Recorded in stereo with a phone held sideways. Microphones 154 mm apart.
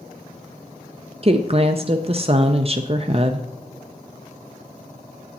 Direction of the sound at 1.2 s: 40° right (ahead or behind).